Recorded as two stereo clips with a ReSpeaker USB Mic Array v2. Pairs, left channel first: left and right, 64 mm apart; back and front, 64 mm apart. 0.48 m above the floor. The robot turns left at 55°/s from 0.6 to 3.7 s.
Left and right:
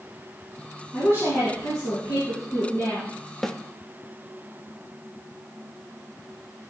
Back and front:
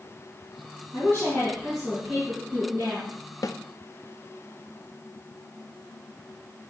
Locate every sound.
0.9 s a woman speaking: 145° left, 5.5 m; by 3.1 s 20° left, 5.5 m
3.4 s a snare drum: 175° left, 0.5 m; by 3.6 s 165° left, 0.5 m